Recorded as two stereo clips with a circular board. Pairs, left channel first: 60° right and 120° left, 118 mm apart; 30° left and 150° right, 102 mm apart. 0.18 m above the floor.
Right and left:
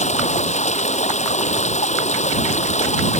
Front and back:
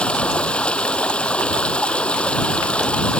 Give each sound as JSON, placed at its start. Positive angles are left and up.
{"t": 0.0, "sound": "running water", "azimuth_deg": -50}